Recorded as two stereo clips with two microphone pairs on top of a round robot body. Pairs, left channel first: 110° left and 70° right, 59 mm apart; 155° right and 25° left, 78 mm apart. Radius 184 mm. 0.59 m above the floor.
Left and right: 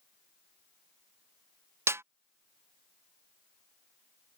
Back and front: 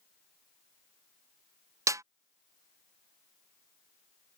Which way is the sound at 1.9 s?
25° right.